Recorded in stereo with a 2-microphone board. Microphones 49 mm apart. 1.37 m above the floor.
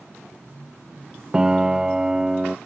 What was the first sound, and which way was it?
A piano, 10° right (ahead or behind).